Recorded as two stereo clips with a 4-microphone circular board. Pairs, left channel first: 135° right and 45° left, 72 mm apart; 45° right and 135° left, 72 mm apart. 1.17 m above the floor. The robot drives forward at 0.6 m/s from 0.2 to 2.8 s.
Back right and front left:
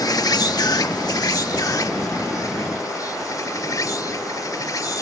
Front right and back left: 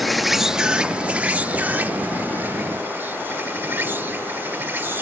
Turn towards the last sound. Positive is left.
turn(degrees=-165)